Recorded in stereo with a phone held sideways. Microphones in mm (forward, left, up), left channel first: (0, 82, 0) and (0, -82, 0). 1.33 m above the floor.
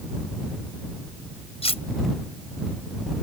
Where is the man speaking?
No man speaking in this recording.